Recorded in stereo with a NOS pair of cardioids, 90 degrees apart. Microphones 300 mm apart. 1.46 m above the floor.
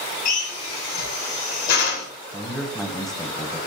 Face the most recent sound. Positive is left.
turn(degrees=0)